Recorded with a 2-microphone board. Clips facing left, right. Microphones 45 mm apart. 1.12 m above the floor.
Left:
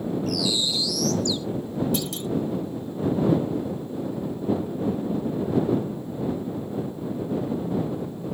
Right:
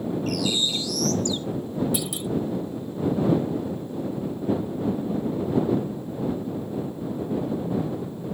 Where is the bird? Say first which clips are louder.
Right 2 dB; 45° right (ahead or behind).